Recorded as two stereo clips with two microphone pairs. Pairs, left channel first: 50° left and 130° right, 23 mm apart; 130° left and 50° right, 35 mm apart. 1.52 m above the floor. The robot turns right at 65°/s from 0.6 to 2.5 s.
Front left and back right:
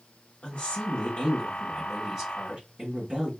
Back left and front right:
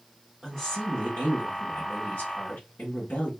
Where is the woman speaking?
55° left, 1.1 m; by 3.3 s straight behind, 1.1 m.